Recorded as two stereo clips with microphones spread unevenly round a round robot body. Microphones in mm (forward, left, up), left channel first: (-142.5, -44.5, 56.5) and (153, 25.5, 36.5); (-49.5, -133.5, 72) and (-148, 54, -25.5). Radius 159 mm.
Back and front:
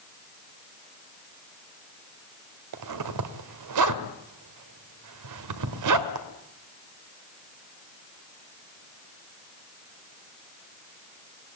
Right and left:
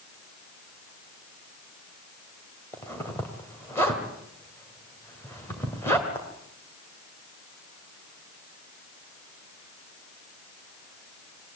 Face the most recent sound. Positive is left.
turn(degrees=30)